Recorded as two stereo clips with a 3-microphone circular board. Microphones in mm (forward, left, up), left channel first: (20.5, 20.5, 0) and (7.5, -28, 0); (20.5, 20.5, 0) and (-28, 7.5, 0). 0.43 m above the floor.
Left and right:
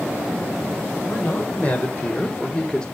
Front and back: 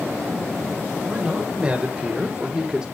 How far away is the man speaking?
About 2.5 m.